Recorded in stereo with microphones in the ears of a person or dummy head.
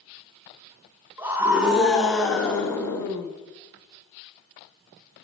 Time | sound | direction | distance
1.2 | a scream | 10° right (ahead or behind) | 2.5 m